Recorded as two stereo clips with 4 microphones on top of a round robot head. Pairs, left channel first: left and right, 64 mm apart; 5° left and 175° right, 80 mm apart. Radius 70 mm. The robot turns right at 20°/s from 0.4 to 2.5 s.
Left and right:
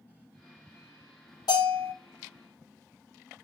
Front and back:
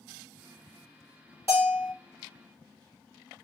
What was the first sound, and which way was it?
A bell, 130° left.